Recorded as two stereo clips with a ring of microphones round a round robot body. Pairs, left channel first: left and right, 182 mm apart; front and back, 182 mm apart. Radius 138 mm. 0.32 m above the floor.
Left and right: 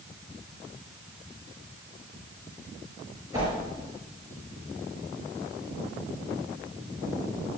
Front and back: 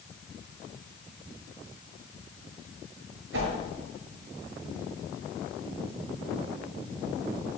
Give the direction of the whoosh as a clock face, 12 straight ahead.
6 o'clock.